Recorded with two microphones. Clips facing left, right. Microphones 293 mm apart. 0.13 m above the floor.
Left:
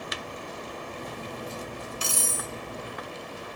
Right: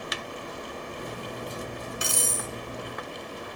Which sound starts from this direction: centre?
Cutlery clinking, at 1.0 s.